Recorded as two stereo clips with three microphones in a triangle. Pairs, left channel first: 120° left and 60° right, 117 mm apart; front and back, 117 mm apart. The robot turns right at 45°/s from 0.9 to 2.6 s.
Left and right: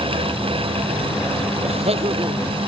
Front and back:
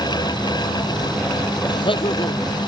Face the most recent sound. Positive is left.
turn(degrees=-5)